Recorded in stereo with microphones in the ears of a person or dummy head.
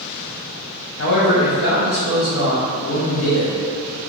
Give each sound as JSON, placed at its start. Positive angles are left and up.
{"t": 1.0, "sound": "a man speaking", "side_deg": 70, "distance_m": 0.8}